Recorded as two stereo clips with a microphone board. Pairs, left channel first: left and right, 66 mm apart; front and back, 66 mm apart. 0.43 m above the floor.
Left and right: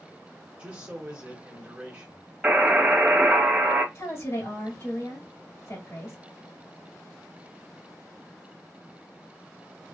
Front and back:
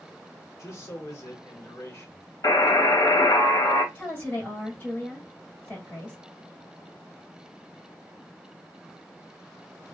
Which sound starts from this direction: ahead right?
A man speaking, at 0.6 s.